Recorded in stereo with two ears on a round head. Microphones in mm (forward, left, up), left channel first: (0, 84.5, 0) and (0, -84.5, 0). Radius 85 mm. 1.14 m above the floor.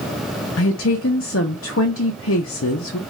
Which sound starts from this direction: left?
A woman speaking, at 0.6 s.